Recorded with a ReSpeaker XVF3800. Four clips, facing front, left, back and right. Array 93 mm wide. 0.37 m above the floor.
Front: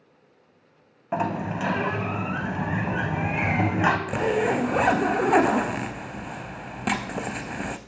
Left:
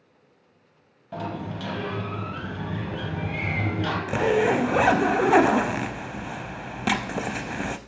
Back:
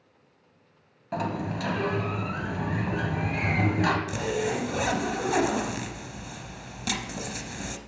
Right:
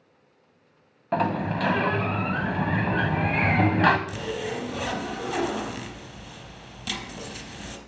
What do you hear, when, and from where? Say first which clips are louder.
1.1 s a sliding door: right 7 dB, front 4 dB; 60° right, 1.0 m
4.1 s a zipper: left 10 dB, front 5 dB; 55° left, 0.6 m